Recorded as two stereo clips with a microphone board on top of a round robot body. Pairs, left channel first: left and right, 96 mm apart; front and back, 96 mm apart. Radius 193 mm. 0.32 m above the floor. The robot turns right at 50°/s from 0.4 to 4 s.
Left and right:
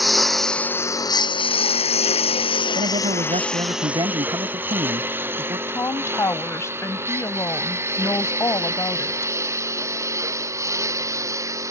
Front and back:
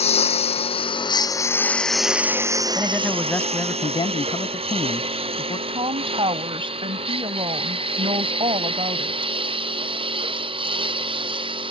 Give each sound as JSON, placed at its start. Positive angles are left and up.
{"t": 0.0, "sound": "a lawn mower", "azimuth_deg": 0}
{"t": 2.8, "sound": "a man speaking", "azimuth_deg": -105}
{"t": 5.7, "sound": "a woman speaking", "azimuth_deg": 150}